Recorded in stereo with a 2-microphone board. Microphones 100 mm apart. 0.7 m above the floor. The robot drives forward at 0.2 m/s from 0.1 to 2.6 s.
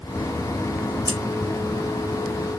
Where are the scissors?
50° left (ahead or behind), 0.6 m.